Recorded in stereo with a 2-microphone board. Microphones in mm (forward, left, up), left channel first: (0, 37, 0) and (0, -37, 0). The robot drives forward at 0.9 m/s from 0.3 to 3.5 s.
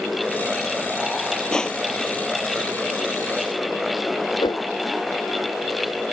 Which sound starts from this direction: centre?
Crushing, at 1.5 s.